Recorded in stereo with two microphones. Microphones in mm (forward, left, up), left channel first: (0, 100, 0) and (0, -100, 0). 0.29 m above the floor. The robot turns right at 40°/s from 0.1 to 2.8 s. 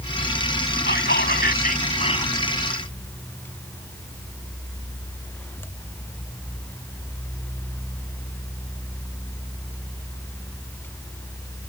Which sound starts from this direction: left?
Whispering, at 0.9 s.